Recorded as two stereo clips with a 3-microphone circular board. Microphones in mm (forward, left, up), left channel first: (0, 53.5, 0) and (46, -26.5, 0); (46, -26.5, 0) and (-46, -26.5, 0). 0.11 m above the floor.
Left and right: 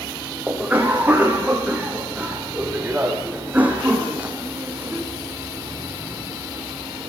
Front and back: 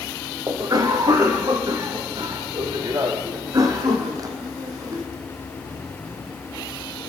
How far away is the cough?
About 6 m.